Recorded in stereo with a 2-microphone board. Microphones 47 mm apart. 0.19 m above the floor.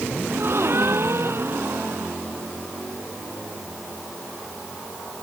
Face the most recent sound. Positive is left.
turn(degrees=-55)  # may be behind; listen again after turning